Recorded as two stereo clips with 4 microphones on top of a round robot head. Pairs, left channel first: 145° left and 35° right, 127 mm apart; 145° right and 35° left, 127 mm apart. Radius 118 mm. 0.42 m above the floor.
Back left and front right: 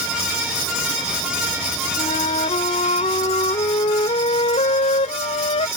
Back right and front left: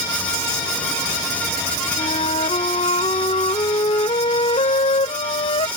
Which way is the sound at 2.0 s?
Straight behind.